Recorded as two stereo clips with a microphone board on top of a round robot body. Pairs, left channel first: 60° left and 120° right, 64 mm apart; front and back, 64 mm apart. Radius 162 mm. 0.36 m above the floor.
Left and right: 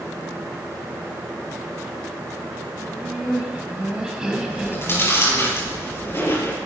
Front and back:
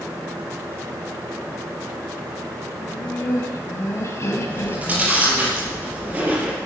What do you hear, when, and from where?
2.8 s laughter: 40° right, 3 m
4.5 s chewing: 110° left, 5 m